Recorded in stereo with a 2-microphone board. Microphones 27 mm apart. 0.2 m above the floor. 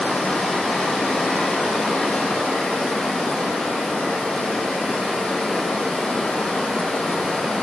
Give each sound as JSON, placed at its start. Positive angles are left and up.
{"t": 0.0, "sound": "running water", "side_deg": 60, "distance_m": 1.1}